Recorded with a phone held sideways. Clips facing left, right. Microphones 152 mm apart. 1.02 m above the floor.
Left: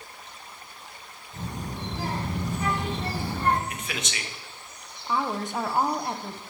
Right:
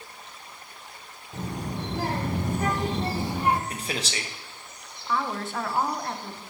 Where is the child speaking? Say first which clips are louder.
Right 3 dB; 75° right (ahead or behind), 1.5 m; by 3.6 s 5° right (ahead or behind), 0.7 m.